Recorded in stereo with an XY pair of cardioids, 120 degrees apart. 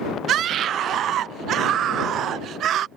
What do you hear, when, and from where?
0.3 s a scream: 60° right